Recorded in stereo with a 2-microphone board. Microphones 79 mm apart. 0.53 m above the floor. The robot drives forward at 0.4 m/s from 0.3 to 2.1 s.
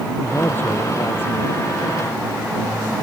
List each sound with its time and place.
0.2 s a man speaking: 25° left (ahead or behind)